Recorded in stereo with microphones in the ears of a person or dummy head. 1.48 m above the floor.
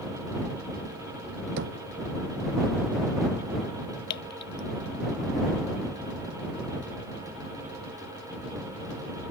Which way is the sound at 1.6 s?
70° right (ahead or behind).